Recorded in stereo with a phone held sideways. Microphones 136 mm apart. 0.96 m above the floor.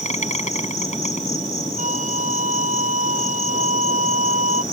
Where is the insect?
70° left (ahead or behind).